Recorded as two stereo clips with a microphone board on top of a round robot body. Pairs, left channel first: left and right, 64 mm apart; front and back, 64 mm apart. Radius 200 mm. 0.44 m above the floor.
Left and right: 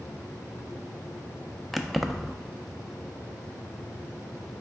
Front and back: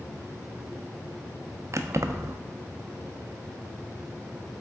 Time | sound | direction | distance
1.7 | keys jangling | straight behind | 0.6 m